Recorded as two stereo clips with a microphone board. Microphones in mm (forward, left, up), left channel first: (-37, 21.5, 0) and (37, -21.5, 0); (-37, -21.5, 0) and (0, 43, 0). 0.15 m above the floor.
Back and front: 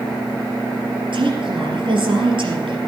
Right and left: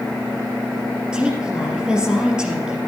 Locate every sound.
1.1 s a woman speaking: 20° right, 3 m